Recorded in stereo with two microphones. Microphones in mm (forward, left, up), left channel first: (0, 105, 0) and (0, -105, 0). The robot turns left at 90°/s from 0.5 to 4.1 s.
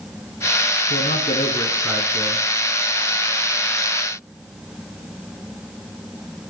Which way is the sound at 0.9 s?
95° left.